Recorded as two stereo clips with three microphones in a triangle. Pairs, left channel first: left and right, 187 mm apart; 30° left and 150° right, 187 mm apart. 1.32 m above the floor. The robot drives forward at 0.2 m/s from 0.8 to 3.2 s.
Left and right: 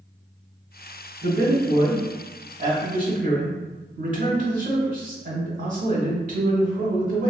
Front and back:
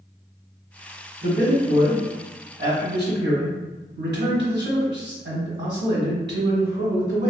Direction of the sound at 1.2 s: 115° right.